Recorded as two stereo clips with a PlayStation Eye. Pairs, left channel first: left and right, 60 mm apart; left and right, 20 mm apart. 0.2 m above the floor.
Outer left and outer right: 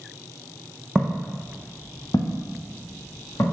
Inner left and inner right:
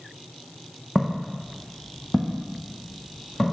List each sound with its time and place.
0.9 s footsteps: 5° right (ahead or behind), 0.8 m; by 3.5 s 65° left (ahead or behind), 1.6 m